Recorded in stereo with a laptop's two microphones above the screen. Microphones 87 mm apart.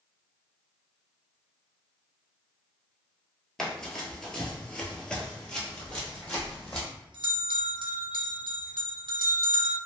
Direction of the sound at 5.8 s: 65° right (ahead or behind).